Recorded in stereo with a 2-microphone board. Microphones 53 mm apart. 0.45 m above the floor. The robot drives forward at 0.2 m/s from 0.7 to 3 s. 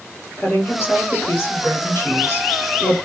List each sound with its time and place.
0.4 s a woman speaking: 40° left (ahead or behind), 1.3 m